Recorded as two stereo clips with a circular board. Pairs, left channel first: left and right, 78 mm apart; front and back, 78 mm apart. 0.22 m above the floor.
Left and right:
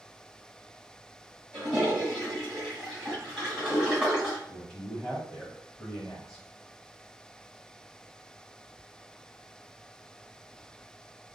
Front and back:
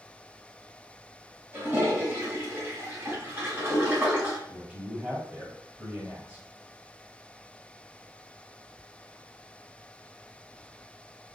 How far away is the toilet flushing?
About 1.8 m.